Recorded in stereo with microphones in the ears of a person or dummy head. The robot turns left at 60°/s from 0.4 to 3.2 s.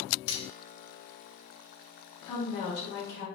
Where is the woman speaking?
155° left, 1.5 m; by 3.3 s 100° left, 1.5 m.